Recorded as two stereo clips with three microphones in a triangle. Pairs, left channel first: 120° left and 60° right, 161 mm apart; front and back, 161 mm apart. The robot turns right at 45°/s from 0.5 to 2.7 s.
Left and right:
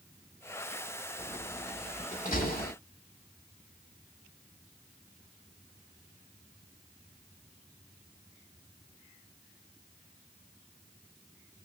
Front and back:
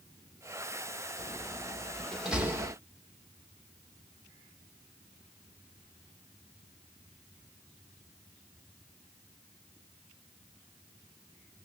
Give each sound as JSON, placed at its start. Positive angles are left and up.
{"t": 1.2, "sound": "a door slam", "azimuth_deg": 45, "distance_m": 2.0}